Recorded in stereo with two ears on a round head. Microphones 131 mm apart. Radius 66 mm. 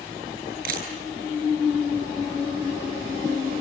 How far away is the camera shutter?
About 7.5 m.